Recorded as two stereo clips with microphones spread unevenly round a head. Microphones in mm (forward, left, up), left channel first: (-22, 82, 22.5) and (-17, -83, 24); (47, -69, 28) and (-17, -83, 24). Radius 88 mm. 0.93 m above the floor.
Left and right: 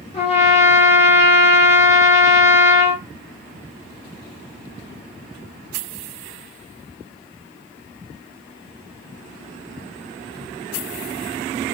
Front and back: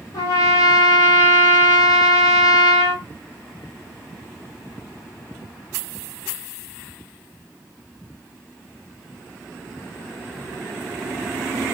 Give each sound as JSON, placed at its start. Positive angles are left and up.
{"t": 0.1, "sound": "a trumpet", "azimuth_deg": 40, "distance_m": 0.9}